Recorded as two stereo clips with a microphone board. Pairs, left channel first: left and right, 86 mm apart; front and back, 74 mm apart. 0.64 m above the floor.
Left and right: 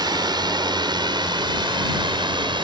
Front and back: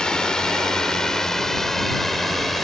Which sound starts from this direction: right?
A drone, at 0.0 s.